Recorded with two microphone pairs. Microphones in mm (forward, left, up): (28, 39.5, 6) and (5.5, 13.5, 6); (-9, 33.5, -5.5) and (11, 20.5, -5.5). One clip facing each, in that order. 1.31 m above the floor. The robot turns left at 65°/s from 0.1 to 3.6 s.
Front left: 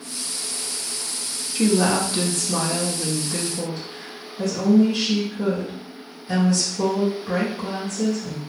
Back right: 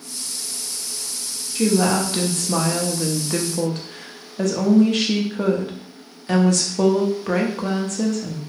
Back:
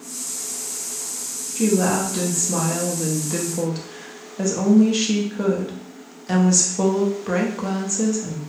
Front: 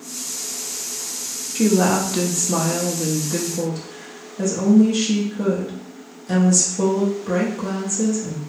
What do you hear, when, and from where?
1.6 s a woman speaking: 20° right, 0.7 m; by 8.4 s 155° right, 0.7 m